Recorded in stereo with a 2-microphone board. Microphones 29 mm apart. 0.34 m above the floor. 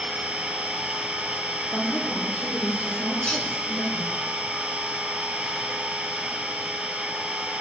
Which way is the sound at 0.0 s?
45° right (ahead or behind).